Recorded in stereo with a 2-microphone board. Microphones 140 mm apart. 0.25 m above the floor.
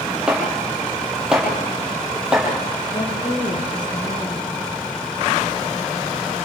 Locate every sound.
0.3 s chopping: 5° right (ahead or behind), 9 m
2.9 s a woman speaking: 30° left (ahead or behind), 6.5 m